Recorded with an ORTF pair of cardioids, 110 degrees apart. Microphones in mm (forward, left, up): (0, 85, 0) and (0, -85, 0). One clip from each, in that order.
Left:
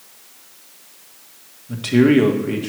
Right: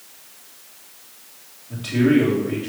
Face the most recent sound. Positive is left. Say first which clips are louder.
# left 4 dB
turn(degrees=60)